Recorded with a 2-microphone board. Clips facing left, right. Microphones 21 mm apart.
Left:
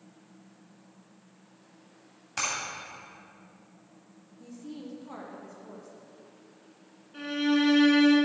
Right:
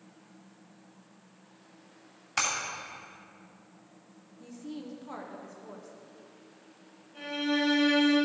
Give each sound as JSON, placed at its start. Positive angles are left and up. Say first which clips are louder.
{"t": 2.4, "sound": "breaking glass", "louder": "right 2 dB", "side_deg": -20, "distance_m": 2.5}
{"t": 4.4, "sound": "a woman speaking", "louder": "right 1 dB", "side_deg": -10, "distance_m": 0.9}
{"t": 7.1, "sound": "a violin", "louder": "left 4 dB", "side_deg": 50, "distance_m": 3.0}